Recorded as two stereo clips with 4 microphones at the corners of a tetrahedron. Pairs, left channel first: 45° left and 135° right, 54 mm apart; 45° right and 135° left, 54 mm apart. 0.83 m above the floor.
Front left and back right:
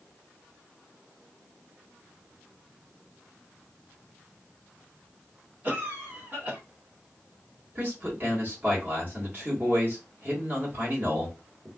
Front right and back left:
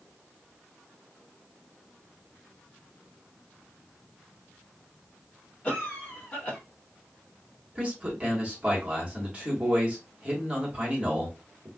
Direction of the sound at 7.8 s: 165° right.